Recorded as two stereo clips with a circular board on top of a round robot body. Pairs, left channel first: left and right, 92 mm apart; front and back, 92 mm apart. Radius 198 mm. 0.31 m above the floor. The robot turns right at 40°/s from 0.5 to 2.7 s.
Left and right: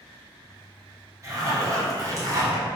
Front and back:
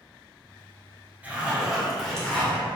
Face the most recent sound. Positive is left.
turn(degrees=-60)